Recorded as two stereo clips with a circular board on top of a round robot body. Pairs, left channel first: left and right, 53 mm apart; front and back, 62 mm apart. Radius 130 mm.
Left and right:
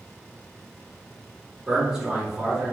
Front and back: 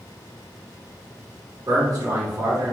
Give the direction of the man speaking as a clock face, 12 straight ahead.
6 o'clock.